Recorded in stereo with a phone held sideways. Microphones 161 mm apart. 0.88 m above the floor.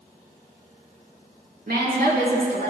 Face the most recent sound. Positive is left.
turn(degrees=-75)  # may be behind; listen again after turning